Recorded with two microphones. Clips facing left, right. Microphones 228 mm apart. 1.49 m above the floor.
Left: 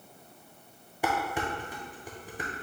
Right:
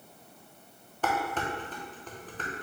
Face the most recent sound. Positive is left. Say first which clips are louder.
# even
turn(degrees=10)  # may be behind; listen again after turning